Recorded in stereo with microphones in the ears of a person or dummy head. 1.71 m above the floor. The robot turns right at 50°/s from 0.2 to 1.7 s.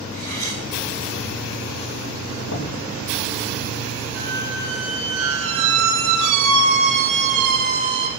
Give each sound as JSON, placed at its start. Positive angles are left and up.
{"t": 0.1, "sound": "cutlery clinking", "side_deg": 45, "distance_m": 9.0}
{"t": 2.5, "sound": "knocking", "side_deg": 85, "distance_m": 3.0}
{"t": 4.2, "sound": "a squeak", "side_deg": -70, "distance_m": 5.0}